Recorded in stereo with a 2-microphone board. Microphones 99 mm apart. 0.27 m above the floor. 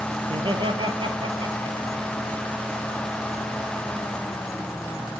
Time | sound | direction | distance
0.2 | laughter | 55° right (ahead or behind) | 4.5 m